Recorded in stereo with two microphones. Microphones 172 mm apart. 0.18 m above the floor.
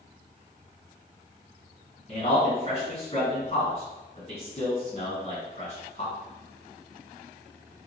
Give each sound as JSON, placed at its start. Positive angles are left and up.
{"t": 2.1, "sound": "a man speaking", "side_deg": 40, "distance_m": 1.5}